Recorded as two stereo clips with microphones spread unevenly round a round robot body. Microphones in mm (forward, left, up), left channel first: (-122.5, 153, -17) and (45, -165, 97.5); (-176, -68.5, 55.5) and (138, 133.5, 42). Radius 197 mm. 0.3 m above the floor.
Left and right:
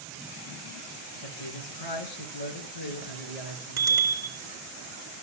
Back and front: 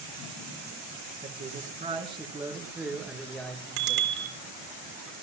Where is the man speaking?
100° left, 3.5 m; by 4.3 s 130° left, 5 m.